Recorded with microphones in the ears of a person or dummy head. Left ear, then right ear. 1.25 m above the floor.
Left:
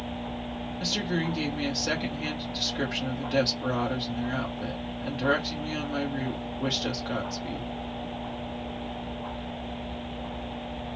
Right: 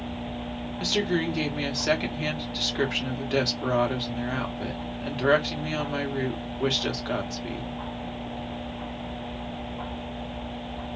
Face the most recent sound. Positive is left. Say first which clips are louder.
# right 4 dB
turn(degrees=-20)  # may be behind; listen again after turning